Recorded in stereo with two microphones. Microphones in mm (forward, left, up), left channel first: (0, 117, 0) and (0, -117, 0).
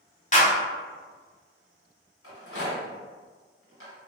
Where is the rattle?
70° left (ahead or behind), 1.7 m.